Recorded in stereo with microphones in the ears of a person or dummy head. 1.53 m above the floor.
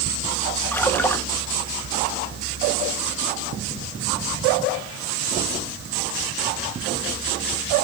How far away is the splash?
About 1.4 m.